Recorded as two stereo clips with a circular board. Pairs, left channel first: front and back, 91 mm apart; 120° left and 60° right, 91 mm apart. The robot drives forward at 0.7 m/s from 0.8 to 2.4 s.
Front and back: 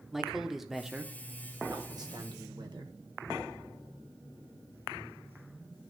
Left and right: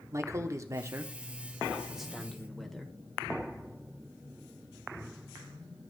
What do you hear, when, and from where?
0.1 s a man speaking: 95° right, 0.9 m; by 2.9 s 155° right, 1.5 m